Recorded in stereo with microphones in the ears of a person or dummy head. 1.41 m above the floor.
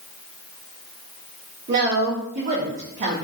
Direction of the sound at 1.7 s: 45° right (ahead or behind).